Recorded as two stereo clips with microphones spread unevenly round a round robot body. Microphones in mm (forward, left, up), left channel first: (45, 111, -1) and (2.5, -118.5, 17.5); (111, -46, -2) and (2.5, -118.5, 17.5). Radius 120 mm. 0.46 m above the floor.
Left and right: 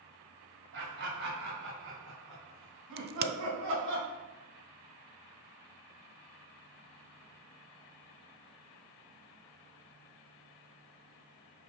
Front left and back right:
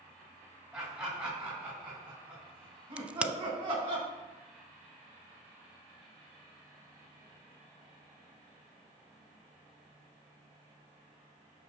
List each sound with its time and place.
0.7 s laughter: 70° right, 3.5 m; by 4.0 s 110° right, 4.5 m
3.0 s a crack: 60° right, 0.6 m